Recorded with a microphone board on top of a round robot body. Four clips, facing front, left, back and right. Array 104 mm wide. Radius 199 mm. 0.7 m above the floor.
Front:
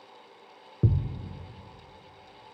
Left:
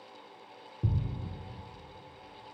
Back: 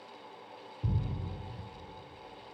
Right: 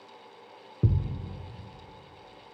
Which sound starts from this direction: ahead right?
A thud, at 0.8 s.